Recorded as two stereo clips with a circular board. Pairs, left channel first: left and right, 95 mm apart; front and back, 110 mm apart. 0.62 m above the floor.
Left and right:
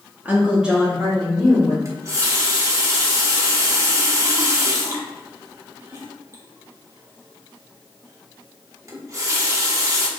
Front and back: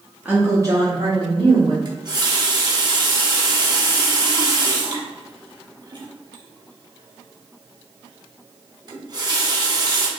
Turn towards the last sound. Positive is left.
turn(degrees=-140)